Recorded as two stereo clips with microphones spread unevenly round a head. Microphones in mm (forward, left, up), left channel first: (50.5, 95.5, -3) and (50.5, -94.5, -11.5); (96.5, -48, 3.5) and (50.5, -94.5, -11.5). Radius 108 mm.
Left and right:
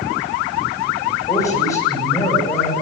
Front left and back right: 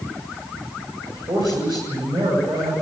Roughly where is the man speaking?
Behind.